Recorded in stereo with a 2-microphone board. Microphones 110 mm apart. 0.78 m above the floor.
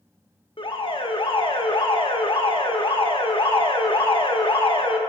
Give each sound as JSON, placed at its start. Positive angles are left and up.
{"t": 0.6, "sound": "an alarm", "side_deg": 50, "distance_m": 0.8}